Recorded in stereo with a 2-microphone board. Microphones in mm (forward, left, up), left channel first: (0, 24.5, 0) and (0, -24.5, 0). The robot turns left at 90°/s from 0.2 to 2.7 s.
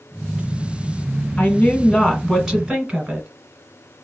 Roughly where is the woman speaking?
Left.